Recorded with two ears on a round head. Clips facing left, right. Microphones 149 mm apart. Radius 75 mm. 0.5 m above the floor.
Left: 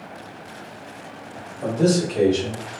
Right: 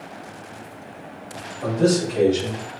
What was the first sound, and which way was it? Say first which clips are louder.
A man speaking: even; 5° left (ahead or behind).